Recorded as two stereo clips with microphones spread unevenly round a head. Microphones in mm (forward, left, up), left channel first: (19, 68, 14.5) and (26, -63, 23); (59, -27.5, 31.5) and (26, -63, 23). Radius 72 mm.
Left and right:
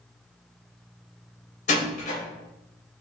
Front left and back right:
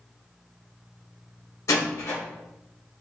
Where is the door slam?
65° left, 3.5 m.